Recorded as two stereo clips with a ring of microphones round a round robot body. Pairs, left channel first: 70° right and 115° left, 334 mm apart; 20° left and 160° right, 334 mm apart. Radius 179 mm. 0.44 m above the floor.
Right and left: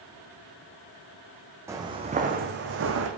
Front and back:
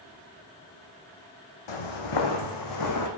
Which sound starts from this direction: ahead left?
Footsteps, at 1.7 s.